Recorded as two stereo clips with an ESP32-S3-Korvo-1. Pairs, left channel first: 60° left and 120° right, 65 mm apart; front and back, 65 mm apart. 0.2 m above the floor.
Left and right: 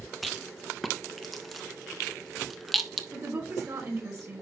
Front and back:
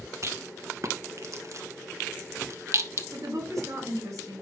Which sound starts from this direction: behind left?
A rattle, at 0.2 s.